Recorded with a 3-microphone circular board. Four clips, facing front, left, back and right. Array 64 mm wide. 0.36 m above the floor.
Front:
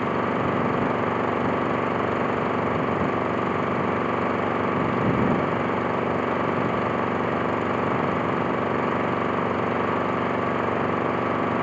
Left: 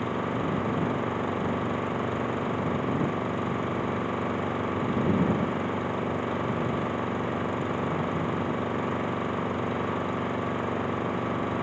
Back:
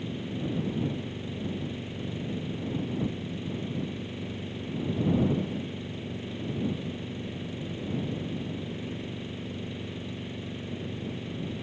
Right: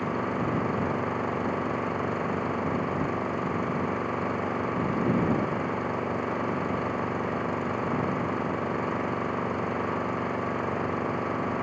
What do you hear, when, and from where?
0.0 s an engine running: 5° right